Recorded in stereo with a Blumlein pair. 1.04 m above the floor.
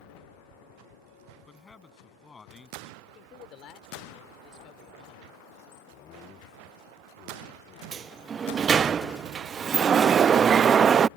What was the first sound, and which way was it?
A man speaking, 15° left.